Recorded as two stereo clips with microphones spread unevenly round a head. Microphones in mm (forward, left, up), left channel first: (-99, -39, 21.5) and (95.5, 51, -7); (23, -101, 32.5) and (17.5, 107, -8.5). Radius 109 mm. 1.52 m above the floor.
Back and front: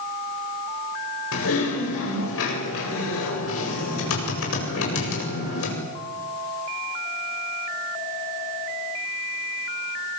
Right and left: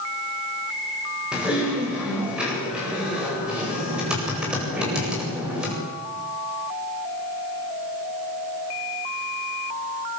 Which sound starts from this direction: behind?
Typing on a keyboard, at 1.3 s.